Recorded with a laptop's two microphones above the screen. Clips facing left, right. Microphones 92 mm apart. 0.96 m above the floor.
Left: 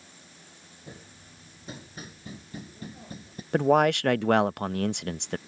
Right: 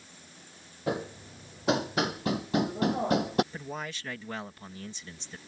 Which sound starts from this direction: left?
A man speaking, at 3.5 s.